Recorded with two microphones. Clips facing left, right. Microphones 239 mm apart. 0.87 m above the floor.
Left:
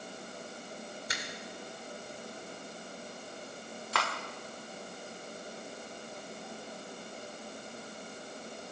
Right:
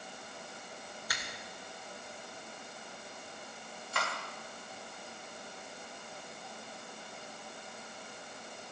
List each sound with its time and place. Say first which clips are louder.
1.1 s a finger snap: left 3 dB; 25° left (ahead or behind), 2.5 m
3.9 s cutlery clinking: left 3 dB; 75° left (ahead or behind), 1.6 m